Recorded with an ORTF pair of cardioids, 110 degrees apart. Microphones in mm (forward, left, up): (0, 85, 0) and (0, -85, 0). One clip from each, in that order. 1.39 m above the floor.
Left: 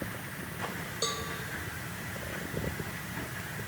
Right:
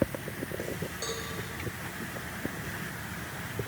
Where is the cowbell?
35° left, 3.5 m.